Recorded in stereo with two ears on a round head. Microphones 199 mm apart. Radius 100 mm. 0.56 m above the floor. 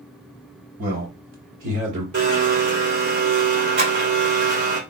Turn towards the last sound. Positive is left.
turn(degrees=-60)  # may be behind; listen again after turning